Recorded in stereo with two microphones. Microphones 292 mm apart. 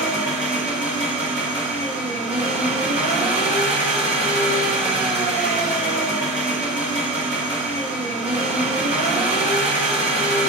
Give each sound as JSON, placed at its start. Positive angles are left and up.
{"t": 0.0, "sound": "an engine running", "side_deg": -20, "distance_m": 2.0}